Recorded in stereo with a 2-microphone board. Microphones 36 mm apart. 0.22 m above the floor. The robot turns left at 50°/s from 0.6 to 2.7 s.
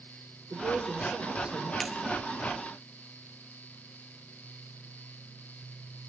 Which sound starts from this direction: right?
A woman speaking, at 0.5 s.